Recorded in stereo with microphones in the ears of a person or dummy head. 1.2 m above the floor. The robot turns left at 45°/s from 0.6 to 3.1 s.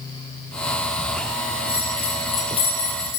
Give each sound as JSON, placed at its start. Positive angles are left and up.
{"t": 1.7, "sound": "a bell", "azimuth_deg": -170, "distance_m": 4.0}